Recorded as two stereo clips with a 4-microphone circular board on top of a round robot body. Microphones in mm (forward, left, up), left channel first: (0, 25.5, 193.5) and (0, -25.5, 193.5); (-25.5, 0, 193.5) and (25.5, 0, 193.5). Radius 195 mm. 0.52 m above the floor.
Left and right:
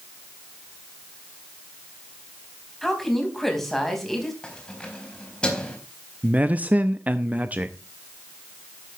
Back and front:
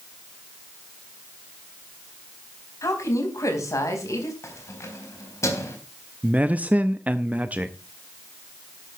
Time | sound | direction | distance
2.8 | a woman speaking | 175° left | 4.5 m
4.4 | keys jangling | 160° left | 4 m
6.2 | a man speaking | 45° right | 1.0 m